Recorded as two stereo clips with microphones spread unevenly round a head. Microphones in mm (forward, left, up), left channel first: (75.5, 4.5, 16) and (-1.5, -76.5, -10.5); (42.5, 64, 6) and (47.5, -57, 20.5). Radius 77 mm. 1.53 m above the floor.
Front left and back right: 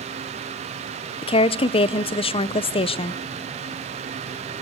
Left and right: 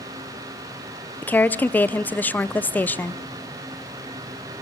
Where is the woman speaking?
15° left, 0.8 m.